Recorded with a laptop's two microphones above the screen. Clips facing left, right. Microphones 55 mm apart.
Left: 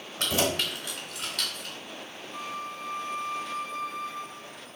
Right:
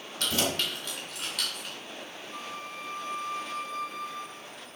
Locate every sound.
0.2 s keys jangling: 25° left (ahead or behind), 2 m; by 1.8 s 15° right (ahead or behind), 2.5 m
2.3 s a flute: 20° left (ahead or behind), 1.4 m